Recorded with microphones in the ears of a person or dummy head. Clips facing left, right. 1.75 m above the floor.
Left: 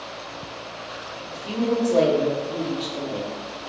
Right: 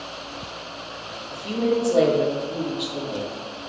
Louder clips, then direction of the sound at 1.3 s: Right 1 dB; 10° right (ahead or behind).